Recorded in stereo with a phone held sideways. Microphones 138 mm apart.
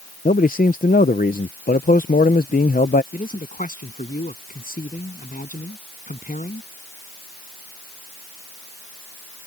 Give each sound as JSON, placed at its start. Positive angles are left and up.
{"t": 0.2, "sound": "a man speaking", "side_deg": 75}
{"t": 3.1, "sound": "a man speaking", "side_deg": 65}